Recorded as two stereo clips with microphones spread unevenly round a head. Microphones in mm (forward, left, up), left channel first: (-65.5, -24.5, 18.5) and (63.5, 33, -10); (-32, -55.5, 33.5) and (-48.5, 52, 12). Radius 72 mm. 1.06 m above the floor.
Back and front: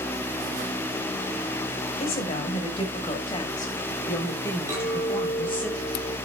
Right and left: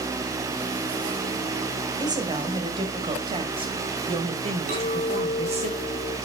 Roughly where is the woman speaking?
Behind left.